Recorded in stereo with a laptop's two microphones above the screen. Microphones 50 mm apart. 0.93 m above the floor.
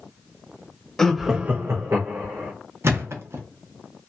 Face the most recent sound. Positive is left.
turn(degrees=-55)  # may be behind; listen again after turning